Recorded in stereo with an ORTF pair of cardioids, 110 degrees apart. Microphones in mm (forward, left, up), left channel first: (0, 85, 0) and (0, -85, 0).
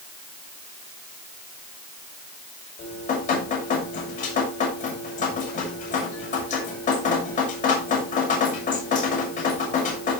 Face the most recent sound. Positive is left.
turn(degrees=50)